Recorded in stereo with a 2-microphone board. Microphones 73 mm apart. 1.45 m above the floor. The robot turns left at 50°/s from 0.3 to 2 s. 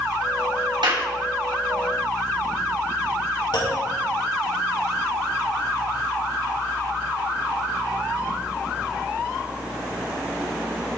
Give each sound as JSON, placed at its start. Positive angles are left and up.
{"t": 0.8, "sound": "a clap", "side_deg": -85, "distance_m": 2.5}
{"t": 3.5, "sound": "a clunk", "side_deg": 70, "distance_m": 3.0}